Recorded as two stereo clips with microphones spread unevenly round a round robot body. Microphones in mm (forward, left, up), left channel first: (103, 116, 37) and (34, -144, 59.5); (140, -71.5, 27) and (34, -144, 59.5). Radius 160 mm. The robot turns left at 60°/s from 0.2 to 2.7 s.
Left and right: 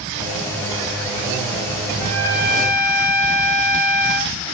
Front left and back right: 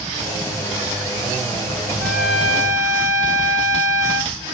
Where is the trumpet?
120° right, 1.4 m; by 4.3 s 160° right, 1.4 m.